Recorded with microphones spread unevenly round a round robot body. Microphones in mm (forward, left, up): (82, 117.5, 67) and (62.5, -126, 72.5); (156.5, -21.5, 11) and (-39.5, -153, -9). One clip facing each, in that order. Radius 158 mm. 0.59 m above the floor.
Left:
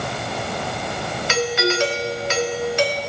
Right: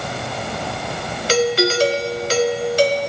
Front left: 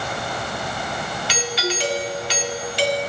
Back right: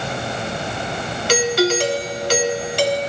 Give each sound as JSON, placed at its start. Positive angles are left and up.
{"t": 1.3, "sound": "a doorbell", "azimuth_deg": -140, "distance_m": 1.4}